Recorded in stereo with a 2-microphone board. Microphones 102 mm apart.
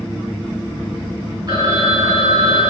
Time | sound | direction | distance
1.5 | a phone ringing | 45° right (ahead or behind) | 3.5 m